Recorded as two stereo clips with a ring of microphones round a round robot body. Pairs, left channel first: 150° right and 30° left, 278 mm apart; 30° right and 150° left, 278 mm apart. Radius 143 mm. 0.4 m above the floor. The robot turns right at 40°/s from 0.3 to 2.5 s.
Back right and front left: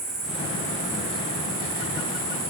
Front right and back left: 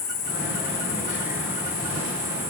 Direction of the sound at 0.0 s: 20° right.